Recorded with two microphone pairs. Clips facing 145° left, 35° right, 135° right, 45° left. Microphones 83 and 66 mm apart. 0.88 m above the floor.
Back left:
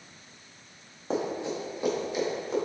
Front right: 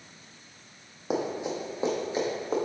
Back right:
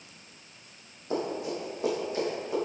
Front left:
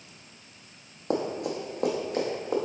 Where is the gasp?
I don't hear a gasp.